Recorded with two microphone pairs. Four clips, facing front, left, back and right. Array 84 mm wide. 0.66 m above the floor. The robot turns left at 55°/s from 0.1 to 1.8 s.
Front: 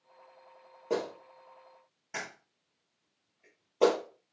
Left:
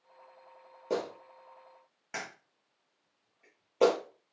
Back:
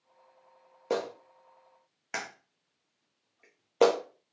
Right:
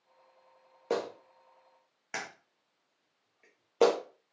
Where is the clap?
115° right, 0.9 m; by 4.0 s 165° right, 0.9 m.